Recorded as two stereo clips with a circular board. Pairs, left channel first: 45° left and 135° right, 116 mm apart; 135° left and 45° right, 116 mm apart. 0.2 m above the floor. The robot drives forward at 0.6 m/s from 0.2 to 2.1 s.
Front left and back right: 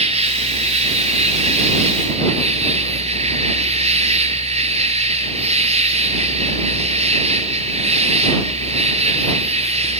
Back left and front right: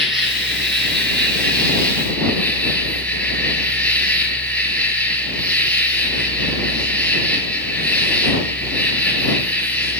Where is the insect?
135° right, 4 m; by 10.0 s 145° right, 5 m.